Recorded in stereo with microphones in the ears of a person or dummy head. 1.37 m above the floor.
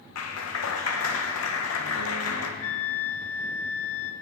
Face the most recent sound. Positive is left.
turn(degrees=45)  # may be behind; listen again after turning